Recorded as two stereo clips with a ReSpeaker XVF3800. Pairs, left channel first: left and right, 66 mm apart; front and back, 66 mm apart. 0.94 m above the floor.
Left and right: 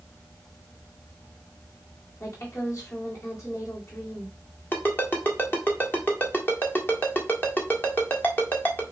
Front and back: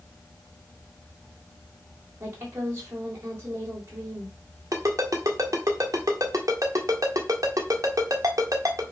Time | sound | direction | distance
2.2 | a woman speaking | 130° left | 3.5 m
4.7 | a ringtone | 145° left | 1.5 m